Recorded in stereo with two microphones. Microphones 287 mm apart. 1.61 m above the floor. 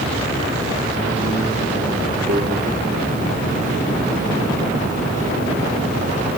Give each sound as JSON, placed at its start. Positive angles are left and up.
{"t": 2.3, "sound": "a microwave", "side_deg": -55, "distance_m": 4.0}